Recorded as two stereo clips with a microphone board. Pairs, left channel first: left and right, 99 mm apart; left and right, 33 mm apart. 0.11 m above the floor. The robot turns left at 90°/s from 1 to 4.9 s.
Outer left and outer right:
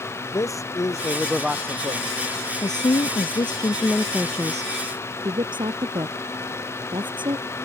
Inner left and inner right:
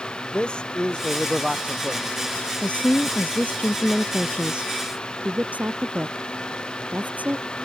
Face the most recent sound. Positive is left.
turn(degrees=-50)  # may be behind; listen again after turning